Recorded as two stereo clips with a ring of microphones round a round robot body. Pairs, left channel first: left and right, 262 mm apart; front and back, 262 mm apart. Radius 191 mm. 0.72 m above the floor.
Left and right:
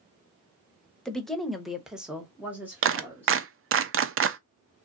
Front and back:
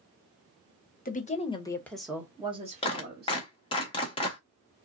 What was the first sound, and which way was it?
A woman speaking, 5° left.